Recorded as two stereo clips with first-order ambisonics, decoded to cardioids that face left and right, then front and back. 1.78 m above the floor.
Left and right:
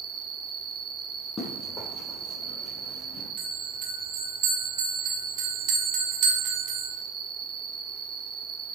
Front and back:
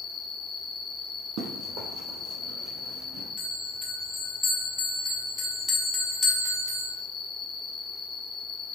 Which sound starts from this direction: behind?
Running footsteps, at 1.4 s.